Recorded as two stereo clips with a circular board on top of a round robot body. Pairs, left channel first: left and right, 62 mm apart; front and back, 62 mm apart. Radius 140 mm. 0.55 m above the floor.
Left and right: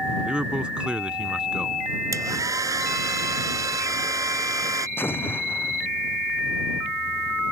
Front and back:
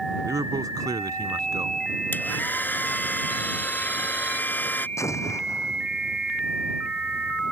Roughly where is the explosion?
Ahead left.